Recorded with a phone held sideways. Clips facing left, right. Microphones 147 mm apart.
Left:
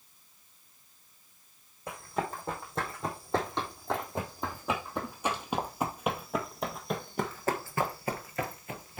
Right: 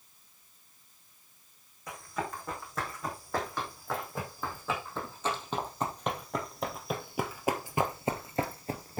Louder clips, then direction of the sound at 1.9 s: Left 3 dB; 30° left (ahead or behind).